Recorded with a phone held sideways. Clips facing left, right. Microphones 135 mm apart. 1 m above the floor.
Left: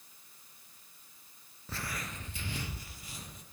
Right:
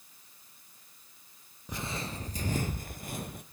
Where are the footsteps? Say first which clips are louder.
Right 4 dB; 15° right (ahead or behind), 1.0 m; by 3.4 s 60° right (ahead or behind), 1.9 m.